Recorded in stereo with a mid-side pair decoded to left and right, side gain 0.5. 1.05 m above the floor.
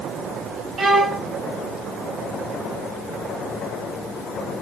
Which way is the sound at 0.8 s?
40° right.